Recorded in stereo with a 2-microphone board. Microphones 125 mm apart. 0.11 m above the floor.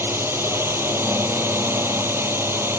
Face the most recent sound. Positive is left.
turn(degrees=-20)  # may be behind; listen again after turning